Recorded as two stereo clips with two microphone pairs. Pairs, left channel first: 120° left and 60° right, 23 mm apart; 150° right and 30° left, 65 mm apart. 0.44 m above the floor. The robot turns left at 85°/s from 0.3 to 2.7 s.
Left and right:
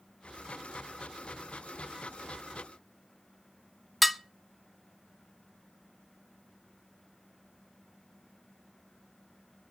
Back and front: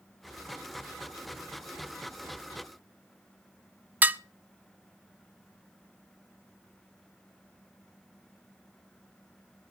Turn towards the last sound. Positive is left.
turn(degrees=35)